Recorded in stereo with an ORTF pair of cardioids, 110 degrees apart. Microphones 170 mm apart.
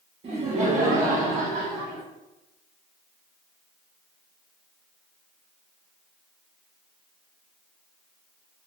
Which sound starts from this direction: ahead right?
Laughter, at 0.2 s.